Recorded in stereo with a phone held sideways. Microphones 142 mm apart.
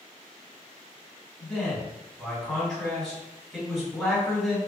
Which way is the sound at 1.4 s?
Centre (ahead or behind).